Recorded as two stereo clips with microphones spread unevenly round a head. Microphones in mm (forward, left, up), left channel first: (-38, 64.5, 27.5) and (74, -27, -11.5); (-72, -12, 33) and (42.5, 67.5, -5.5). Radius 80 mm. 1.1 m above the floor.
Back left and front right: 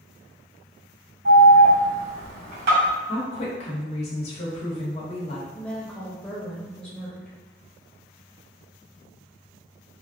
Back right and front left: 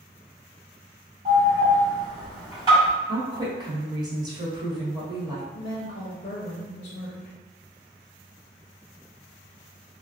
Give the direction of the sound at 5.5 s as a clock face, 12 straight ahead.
4 o'clock.